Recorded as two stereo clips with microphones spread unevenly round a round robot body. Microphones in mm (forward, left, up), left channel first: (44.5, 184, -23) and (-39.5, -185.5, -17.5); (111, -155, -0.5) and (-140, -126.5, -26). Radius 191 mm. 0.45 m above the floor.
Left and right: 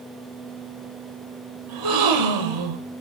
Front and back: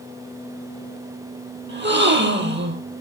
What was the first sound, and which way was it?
A gasp, 140° right.